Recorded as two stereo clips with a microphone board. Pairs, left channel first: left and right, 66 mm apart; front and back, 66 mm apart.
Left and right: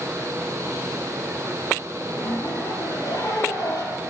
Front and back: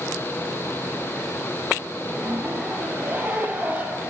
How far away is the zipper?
About 6 m.